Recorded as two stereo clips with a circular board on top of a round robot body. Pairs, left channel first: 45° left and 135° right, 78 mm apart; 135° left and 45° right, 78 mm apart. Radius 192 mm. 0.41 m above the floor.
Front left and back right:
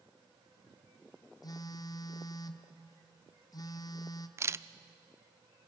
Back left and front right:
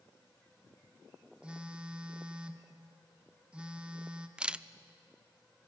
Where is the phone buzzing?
30° left, 1.3 m.